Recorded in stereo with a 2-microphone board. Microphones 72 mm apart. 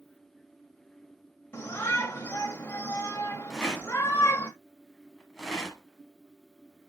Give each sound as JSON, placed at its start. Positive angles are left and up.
{"t": 1.5, "sound": "a shout", "side_deg": 30, "distance_m": 1.1}
{"t": 3.5, "sound": "a rattle", "side_deg": 0, "distance_m": 1.3}